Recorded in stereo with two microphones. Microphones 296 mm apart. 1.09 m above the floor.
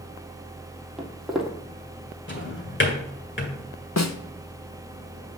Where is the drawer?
40° left (ahead or behind), 1.9 m.